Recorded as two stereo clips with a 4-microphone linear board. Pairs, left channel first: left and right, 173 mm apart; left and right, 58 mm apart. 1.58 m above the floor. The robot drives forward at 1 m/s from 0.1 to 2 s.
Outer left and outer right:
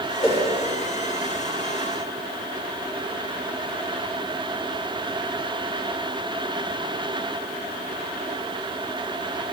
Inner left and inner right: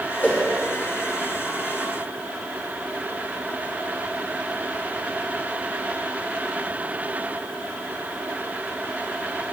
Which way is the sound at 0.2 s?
40° left (ahead or behind).